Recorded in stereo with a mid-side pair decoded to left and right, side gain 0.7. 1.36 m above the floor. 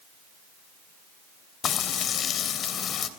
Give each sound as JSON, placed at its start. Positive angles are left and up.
{"t": 1.6, "sound": "frying", "azimuth_deg": 40, "distance_m": 3.0}